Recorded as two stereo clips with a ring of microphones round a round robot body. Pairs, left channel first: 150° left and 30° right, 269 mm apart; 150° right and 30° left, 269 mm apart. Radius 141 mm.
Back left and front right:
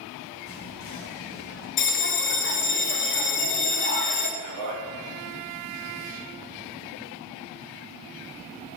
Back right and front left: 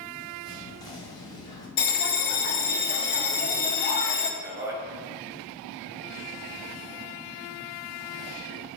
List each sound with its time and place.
0.5 s whispering: 140° left, 1.8 m
1.8 s a bell: 175° left, 0.8 m
4.4 s a man speaking: 50° right, 3 m